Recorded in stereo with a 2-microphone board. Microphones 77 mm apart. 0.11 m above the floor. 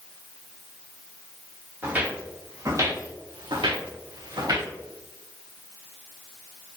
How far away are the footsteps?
About 1.2 m.